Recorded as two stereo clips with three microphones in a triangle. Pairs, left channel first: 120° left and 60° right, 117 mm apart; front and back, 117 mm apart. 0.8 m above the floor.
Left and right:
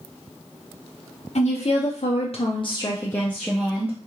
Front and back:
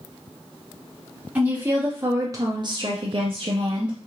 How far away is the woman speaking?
About 1.3 m.